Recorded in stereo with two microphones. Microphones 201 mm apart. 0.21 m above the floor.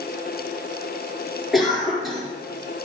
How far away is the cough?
About 4 m.